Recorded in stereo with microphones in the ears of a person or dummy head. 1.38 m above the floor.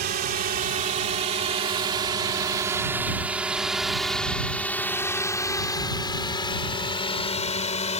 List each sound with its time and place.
0.0 s a drone: 45° right (ahead or behind); by 8.0 s 35° left (ahead or behind)